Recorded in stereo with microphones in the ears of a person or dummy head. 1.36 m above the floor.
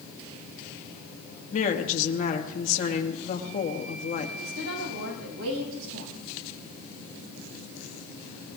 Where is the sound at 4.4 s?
85° right, 7.5 m.